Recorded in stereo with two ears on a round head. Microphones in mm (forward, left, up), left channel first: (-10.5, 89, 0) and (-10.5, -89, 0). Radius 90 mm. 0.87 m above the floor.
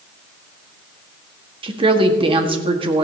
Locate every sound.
1.6 s a woman speaking: 30° right (ahead or behind), 1.6 m